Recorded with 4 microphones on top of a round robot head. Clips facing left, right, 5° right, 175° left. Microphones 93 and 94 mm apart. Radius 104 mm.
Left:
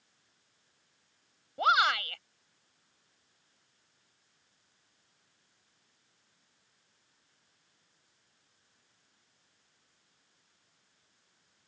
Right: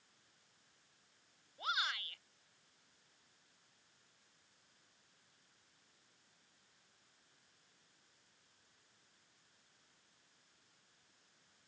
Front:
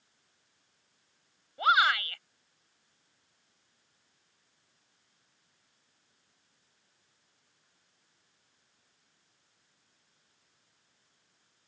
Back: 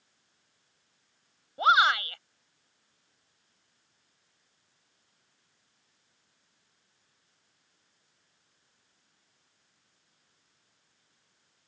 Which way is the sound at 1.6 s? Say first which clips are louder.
Left 15 dB, back 3 dB; 110° left.